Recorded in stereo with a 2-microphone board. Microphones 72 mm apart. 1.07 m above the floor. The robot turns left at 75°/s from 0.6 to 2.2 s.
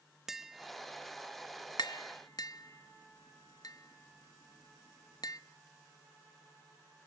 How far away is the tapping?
About 1.0 m.